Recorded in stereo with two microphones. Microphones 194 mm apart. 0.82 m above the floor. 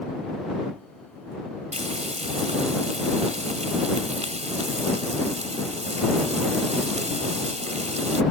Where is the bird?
No bird in this recording.